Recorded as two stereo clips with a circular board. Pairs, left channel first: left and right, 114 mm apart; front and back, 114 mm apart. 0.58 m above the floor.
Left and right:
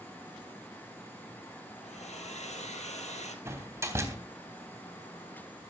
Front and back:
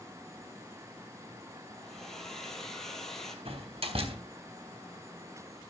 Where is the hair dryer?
85° left, 3 m.